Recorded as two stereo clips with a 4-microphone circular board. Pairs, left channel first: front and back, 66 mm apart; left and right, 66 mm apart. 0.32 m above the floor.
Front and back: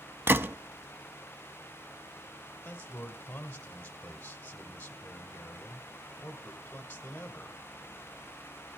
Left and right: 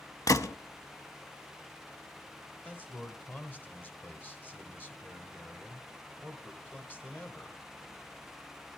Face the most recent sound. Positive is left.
turn(degrees=45)